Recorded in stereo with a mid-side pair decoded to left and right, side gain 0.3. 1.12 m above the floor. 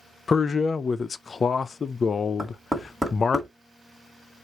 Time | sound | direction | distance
0.3 | a man speaking | 55° left | 0.5 m
2.4 | knocking | 10° right | 2.0 m